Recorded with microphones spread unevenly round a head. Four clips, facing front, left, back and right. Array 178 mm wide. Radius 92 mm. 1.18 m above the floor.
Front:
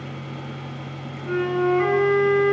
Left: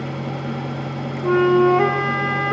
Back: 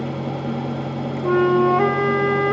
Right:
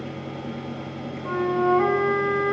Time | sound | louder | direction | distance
0.0 | a fan | left 5 dB, back 9 dB | 160° left | 1.5 m
1.2 | a flute | left 8 dB, back 6 dB | 130° left | 1.8 m